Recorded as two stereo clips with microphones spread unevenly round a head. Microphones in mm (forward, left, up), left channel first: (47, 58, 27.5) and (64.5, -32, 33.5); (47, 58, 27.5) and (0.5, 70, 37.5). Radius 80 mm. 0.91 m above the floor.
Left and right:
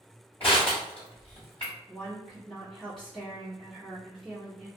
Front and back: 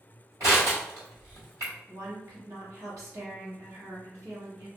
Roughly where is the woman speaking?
Behind.